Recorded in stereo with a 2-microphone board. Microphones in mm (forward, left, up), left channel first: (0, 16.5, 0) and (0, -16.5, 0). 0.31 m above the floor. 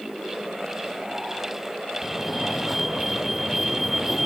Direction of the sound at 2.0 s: 5° right (ahead or behind).